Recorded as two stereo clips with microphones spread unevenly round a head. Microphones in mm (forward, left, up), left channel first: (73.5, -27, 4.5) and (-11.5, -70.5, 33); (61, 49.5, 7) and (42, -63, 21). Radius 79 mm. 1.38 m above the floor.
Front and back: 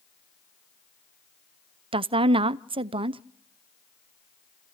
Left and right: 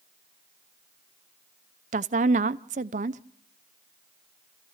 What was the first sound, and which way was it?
A woman speaking, 120° right.